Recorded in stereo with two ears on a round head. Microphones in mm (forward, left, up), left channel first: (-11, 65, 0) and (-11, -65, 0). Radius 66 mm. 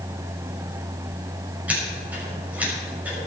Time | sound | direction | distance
1.7 | scissors | 10° right (ahead or behind) | 6 m